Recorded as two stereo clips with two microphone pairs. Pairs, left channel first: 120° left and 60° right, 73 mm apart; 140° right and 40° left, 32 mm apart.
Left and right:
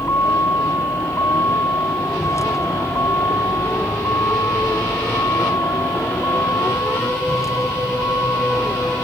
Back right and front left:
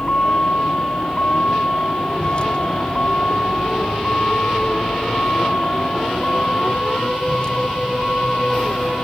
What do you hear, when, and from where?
0.0 s a vehicle: 170° left; by 9.1 s 160° left